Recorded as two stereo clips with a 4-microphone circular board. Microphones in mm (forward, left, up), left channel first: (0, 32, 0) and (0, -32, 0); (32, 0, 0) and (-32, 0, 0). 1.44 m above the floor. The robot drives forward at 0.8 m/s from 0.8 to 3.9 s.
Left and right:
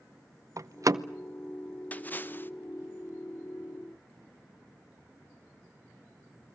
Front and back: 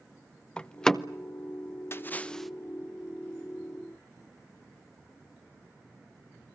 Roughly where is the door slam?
Right.